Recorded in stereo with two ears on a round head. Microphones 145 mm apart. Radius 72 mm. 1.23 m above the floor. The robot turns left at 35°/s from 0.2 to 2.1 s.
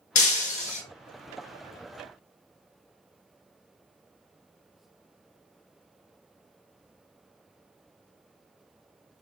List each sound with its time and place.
0.1 s breaking glass: 50° left (ahead or behind), 1.1 m; by 0.8 s 45° left (ahead or behind), 1.1 m